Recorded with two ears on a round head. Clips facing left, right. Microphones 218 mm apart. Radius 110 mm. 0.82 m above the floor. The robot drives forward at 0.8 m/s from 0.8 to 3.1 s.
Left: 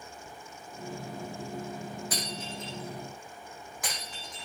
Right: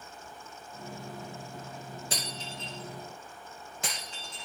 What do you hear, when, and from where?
2.1 s breaking glass: 25° right (ahead or behind), 8 m